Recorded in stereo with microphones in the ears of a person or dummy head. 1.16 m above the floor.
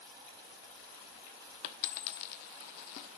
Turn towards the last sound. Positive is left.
turn(degrees=55)  # may be behind; listen again after turning